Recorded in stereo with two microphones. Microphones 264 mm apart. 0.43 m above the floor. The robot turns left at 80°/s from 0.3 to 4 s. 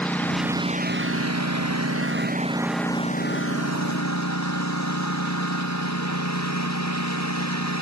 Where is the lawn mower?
5° left (ahead or behind); by 7.8 s 85° left.